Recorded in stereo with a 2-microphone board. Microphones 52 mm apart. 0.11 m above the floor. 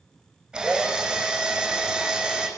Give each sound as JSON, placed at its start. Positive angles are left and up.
{"t": 0.5, "sound": "a drill", "side_deg": -15, "distance_m": 4.0}